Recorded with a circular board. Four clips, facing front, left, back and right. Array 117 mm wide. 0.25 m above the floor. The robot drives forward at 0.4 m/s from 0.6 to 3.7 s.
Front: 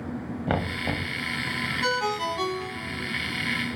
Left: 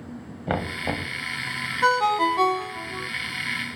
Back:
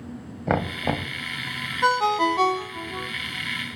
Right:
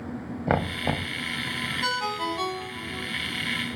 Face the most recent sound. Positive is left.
turn(degrees=160)